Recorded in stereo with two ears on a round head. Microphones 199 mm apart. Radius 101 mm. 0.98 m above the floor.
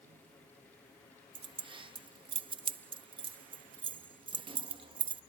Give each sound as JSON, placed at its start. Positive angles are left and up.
{"t": 1.4, "sound": "keys jangling", "side_deg": -25}